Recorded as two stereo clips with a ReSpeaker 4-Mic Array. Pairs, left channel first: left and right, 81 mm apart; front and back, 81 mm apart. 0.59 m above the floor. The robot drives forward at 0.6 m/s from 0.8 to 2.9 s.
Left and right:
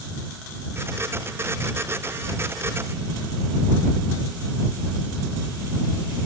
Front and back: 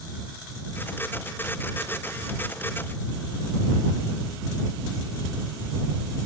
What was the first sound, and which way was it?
Only background noise.